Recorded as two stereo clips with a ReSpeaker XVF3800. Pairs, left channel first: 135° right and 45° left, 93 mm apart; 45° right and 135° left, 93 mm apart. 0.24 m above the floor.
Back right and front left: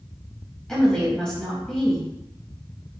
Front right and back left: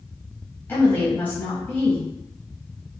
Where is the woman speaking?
65° right, 1.0 m.